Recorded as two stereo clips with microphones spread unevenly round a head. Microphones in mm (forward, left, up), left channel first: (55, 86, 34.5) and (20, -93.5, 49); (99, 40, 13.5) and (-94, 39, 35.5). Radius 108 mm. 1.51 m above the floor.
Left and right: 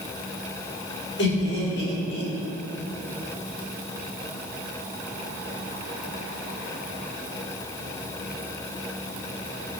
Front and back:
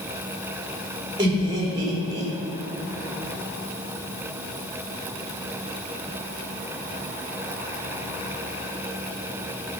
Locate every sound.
1.2 s laughter: 110° left, 4 m